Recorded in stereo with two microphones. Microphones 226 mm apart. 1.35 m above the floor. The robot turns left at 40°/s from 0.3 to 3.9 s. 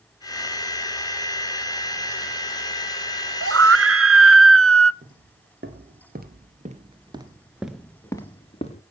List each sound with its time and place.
3.4 s a scream: 70° right (ahead or behind), 0.6 m; by 4.9 s 75° right (ahead or behind), 0.6 m
5.0 s footsteps: 55° right (ahead or behind), 2.5 m; by 8.8 s 30° left (ahead or behind), 1.5 m